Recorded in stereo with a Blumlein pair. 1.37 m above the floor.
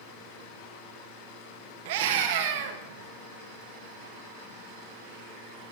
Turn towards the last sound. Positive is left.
turn(degrees=-50)